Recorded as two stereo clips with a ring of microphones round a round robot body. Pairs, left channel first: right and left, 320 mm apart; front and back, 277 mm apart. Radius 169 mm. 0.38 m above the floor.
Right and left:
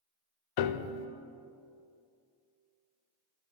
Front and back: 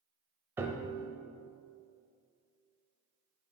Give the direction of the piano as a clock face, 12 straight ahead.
3 o'clock.